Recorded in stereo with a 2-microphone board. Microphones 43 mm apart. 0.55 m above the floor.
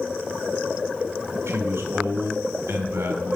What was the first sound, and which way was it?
A man speaking, 75° right (ahead or behind).